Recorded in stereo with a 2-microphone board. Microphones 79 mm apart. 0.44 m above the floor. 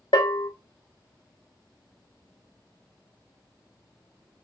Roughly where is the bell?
Left.